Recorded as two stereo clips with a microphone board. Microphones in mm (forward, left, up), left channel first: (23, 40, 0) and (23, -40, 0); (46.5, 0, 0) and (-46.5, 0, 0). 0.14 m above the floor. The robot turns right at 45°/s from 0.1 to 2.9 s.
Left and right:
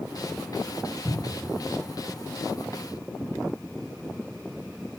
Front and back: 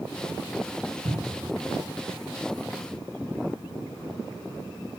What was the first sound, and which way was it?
A cupboard door, 175° left.